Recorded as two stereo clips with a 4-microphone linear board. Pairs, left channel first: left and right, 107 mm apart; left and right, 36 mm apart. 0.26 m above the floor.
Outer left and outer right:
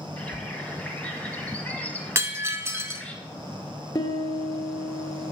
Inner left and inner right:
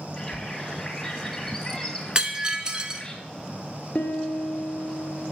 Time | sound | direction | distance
0.2 | a bird | 15° left (ahead or behind) | 1.0 m
2.1 | breaking glass | 25° right (ahead or behind) | 0.6 m
4.0 | a piano | 35° left (ahead or behind) | 1.0 m